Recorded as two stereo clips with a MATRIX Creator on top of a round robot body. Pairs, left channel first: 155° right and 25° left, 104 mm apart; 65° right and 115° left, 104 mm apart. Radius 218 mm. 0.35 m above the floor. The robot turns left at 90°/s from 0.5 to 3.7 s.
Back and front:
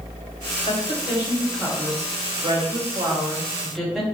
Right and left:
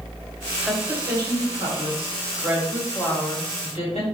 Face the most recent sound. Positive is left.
turn(degrees=-65)